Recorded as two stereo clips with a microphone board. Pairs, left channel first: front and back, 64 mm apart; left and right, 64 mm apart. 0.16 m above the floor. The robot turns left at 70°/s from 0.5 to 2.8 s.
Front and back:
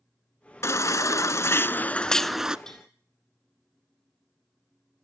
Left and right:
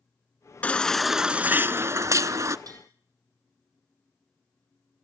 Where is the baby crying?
25° left, 0.6 m; by 2.6 s 110° right, 0.6 m.